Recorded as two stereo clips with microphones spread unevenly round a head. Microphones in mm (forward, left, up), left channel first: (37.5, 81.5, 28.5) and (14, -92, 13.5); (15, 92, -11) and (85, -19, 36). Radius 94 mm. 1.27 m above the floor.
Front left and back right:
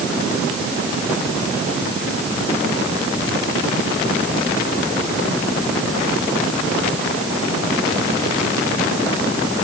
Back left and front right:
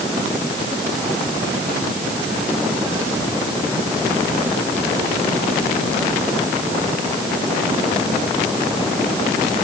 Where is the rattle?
No rattle in this recording.